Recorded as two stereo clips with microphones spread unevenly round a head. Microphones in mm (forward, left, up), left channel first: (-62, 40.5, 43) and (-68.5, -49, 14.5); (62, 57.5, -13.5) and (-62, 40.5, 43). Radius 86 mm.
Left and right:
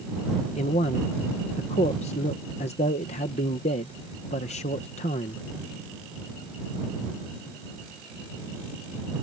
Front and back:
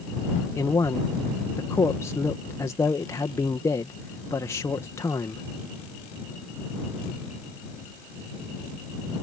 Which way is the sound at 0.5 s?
75° left.